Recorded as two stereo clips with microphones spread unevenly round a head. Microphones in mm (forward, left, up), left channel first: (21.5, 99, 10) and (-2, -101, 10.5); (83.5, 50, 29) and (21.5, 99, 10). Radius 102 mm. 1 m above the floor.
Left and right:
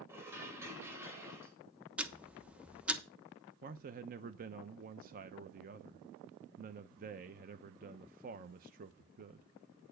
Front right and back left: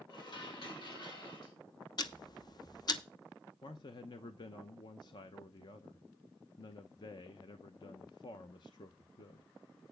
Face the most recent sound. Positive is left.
turn(degrees=-70)